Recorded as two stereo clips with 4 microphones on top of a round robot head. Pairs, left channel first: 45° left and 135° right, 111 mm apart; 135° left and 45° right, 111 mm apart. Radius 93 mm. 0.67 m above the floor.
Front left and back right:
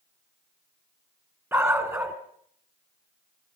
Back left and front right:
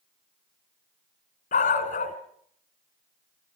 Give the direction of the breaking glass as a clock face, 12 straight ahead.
No breaking glass in this recording.